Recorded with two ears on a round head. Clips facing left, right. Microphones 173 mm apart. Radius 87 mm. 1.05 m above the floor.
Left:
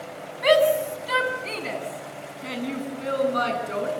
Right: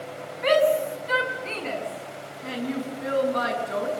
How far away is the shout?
About 7.5 m.